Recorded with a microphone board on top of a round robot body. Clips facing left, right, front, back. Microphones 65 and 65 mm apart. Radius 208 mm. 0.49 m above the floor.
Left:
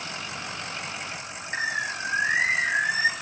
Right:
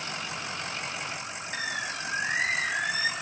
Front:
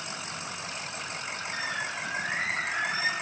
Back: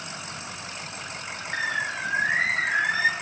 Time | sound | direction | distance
1.5 | a bird | 150° left | 0.6 m